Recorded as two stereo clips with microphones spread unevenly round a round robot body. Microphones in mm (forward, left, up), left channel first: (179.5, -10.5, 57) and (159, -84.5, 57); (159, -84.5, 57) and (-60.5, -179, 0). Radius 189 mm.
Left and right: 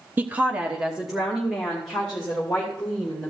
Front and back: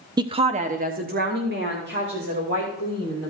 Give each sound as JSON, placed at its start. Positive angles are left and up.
{"t": 0.2, "sound": "a woman speaking", "azimuth_deg": -140, "distance_m": 0.8}